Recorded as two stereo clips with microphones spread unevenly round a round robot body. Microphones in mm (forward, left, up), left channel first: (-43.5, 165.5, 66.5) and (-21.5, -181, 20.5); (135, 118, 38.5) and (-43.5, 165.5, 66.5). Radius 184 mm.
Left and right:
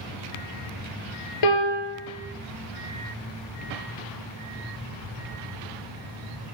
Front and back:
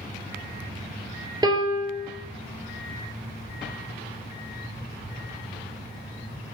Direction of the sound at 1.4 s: 100° left.